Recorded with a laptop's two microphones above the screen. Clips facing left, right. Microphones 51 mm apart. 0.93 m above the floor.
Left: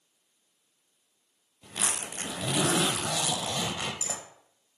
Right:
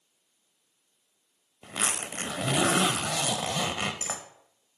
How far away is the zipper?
About 0.9 m.